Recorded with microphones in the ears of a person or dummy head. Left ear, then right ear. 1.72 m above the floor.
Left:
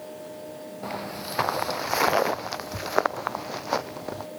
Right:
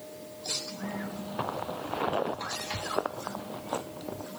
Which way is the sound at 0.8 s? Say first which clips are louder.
Left 5 dB; 60° left (ahead or behind).